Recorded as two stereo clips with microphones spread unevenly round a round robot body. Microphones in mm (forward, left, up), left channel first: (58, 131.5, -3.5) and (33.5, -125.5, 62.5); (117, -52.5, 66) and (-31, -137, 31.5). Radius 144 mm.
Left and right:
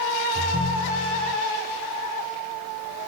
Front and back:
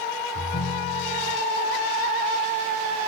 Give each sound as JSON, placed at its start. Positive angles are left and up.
{"t": 0.3, "sound": "a ringtone", "azimuth_deg": 15, "distance_m": 3.5}